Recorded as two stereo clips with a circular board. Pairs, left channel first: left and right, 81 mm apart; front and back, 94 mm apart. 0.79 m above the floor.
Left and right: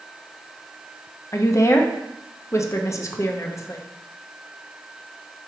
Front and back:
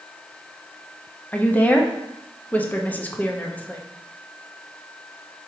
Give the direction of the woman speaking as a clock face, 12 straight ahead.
10 o'clock.